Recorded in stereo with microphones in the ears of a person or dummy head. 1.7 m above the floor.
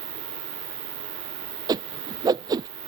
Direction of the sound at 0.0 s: 40° right (ahead or behind).